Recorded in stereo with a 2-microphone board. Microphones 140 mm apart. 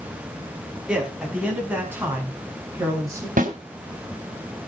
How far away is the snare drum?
About 3 m.